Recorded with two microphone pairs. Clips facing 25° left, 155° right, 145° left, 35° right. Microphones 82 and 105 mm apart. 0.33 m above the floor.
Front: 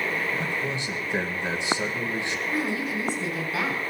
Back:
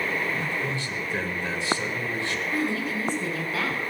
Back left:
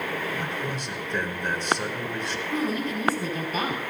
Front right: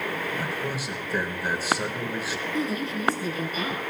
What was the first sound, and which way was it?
A man speaking, 35° left.